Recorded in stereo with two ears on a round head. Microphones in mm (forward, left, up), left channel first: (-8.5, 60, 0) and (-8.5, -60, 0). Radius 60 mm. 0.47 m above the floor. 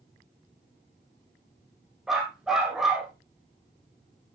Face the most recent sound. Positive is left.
turn(degrees=-5)  # may be behind; listen again after turning